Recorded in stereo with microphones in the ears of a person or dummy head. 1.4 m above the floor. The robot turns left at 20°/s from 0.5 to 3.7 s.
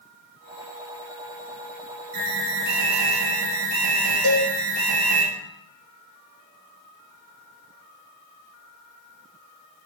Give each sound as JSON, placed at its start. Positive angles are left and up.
{"t": 2.1, "sound": "an alarm", "azimuth_deg": -80, "distance_m": 1.8}
{"t": 4.2, "sound": "a cowbell", "side_deg": -55, "distance_m": 3.0}